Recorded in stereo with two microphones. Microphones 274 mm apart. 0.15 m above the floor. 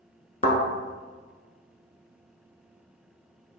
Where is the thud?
30° left (ahead or behind), 0.8 m.